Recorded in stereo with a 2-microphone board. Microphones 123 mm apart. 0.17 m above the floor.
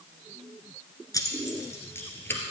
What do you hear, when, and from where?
1.1 s keys jangling: 30° left (ahead or behind), 1.5 m; by 2.4 s 15° left (ahead or behind), 2 m